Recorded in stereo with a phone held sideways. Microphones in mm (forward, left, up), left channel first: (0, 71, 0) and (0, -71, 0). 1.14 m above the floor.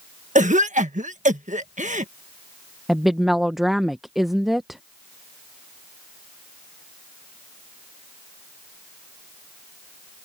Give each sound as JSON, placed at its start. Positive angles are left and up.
{"t": 0.3, "sound": "a cough", "side_deg": -60}
{"t": 2.9, "sound": "a woman speaking", "side_deg": -5}